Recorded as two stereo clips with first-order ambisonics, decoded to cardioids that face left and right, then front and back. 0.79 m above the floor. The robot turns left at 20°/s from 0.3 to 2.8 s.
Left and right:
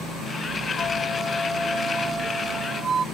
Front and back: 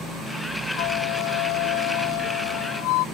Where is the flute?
20° left; by 3.0 s 20° right.